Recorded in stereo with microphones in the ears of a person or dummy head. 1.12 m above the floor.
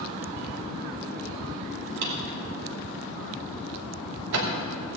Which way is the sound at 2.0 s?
60° right (ahead or behind).